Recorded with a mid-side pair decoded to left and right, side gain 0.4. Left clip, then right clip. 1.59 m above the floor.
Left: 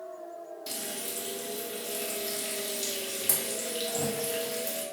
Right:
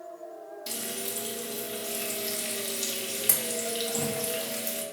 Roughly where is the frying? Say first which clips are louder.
Right 2 dB; ahead right.